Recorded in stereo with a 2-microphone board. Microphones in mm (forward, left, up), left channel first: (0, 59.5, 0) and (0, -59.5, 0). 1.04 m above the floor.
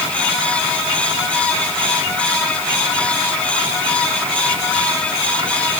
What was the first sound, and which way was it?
Only background noise.